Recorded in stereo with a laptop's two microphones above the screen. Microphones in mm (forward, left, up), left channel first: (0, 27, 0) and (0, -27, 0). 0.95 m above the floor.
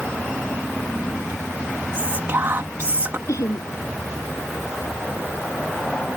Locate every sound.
1.9 s whispering: 50° right (ahead or behind)
3.3 s laughter: 70° left (ahead or behind)